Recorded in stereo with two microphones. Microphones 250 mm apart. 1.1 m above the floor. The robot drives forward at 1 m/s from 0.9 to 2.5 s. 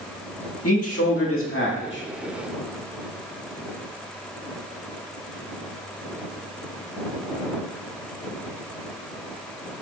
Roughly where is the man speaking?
Left.